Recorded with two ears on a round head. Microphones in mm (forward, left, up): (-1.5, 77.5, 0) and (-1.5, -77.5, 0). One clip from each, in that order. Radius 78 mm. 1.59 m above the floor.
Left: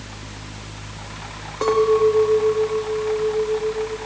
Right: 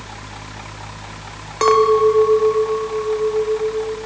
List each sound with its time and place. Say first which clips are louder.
1.6 s a clink: right 4 dB; 60° right (ahead or behind), 1.9 m